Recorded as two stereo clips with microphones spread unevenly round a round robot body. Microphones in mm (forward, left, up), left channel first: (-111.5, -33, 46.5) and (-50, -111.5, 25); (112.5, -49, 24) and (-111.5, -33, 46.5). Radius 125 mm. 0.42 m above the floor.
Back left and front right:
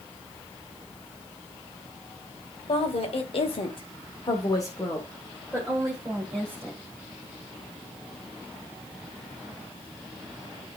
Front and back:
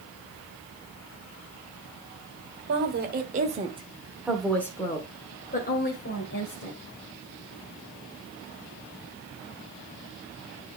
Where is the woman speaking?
135° left, 1.7 m; by 6.8 s 15° left, 2 m.